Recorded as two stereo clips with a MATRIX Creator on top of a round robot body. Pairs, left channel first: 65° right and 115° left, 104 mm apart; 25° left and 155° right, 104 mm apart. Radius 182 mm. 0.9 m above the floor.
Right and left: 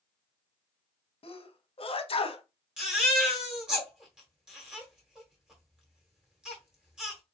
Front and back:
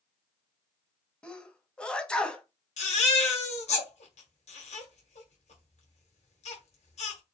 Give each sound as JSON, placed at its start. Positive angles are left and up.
{"t": 1.2, "sound": "a sneeze", "azimuth_deg": -55, "distance_m": 1.3}
{"t": 2.8, "sound": "a baby crying", "azimuth_deg": 30, "distance_m": 1.3}